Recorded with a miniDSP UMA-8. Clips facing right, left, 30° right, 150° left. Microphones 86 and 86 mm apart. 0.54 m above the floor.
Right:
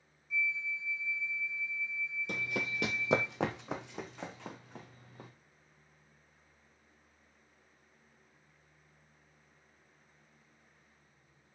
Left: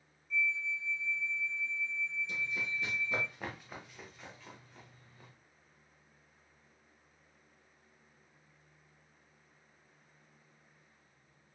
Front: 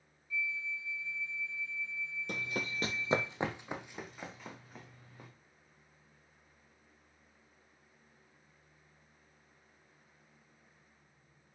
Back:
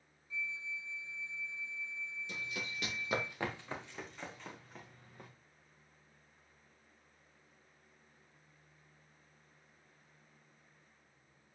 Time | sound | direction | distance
0.3 | a flute | 165° right | 1.1 m
2.3 | running footsteps | 60° right | 1.0 m